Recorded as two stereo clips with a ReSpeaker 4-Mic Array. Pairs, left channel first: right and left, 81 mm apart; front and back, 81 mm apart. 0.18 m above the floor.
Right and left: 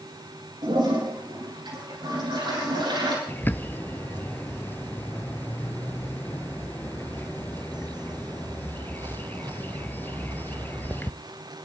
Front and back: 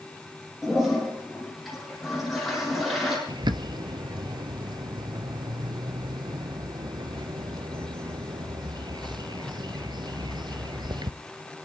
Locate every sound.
0.6 s a toilet flushing: 90° left, 7 m
3.3 s a bird: 155° right, 0.6 m